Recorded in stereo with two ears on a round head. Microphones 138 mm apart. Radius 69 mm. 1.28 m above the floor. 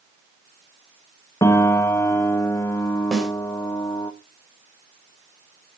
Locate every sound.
1.4 s a piano: 20° left (ahead or behind), 1.0 m
3.1 s a snare drum: centre (ahead or behind), 3.5 m